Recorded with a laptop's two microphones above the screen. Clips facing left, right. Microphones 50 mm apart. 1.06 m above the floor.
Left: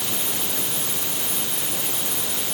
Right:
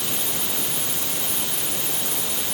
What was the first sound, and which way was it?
Only background noise.